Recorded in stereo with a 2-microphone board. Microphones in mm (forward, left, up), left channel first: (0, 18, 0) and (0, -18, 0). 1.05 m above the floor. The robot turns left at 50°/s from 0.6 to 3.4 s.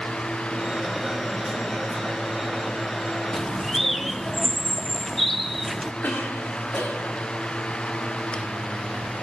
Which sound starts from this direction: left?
A cough, at 6.0 s.